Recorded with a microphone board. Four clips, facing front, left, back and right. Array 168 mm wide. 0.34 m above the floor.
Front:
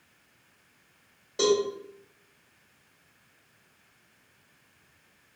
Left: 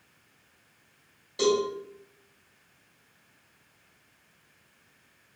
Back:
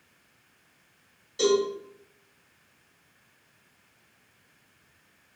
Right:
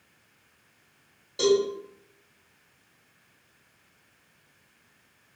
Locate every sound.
1.4 s a cowbell: 5° right, 1.9 m